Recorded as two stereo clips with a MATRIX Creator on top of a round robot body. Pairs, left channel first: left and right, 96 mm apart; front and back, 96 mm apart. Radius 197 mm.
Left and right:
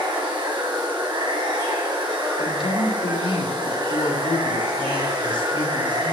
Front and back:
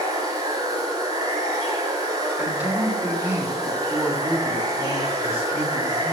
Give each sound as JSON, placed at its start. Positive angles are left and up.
{"t": 0.0, "sound": "running water", "azimuth_deg": -130, "distance_m": 3.0}
{"t": 2.4, "sound": "a man speaking", "azimuth_deg": 110, "distance_m": 3.0}